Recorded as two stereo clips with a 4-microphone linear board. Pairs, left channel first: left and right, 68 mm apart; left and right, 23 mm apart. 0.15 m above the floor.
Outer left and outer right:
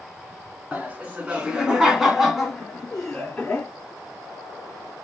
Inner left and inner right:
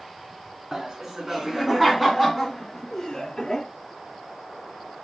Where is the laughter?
25° right (ahead or behind), 1.7 m; by 3.7 s 15° left (ahead or behind), 1.8 m.